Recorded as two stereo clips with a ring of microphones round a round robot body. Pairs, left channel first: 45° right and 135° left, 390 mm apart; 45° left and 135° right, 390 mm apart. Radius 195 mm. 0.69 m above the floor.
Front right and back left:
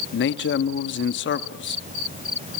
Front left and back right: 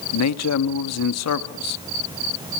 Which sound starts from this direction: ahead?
A man speaking, at 0.1 s.